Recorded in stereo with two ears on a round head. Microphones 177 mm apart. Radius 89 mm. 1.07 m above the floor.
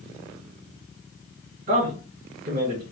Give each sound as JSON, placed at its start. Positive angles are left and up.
{"t": 1.7, "sound": "a man speaking", "side_deg": -40, "distance_m": 1.1}